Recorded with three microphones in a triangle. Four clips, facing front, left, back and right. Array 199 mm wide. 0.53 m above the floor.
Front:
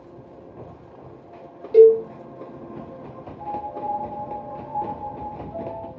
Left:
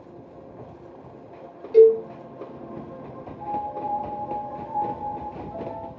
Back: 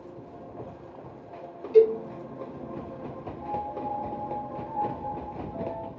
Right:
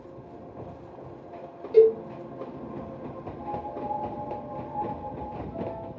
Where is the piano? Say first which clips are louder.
Left 5 dB, front 4 dB; 5° left, 2 m.